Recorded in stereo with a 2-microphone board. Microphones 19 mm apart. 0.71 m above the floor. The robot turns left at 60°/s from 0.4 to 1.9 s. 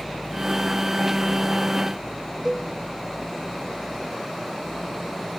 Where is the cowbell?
25° right (ahead or behind), 1.1 m.